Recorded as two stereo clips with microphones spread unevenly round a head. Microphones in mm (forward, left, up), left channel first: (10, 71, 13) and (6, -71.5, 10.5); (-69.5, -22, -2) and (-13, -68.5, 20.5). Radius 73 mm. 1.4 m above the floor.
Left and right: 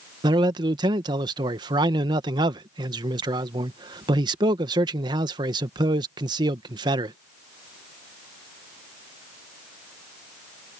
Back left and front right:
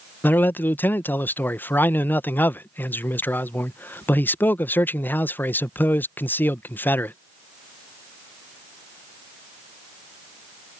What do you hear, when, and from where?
0.2 s a man speaking: 155° right